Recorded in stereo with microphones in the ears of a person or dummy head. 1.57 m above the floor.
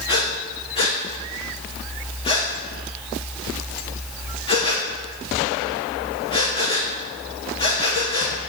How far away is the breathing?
About 1.0 m.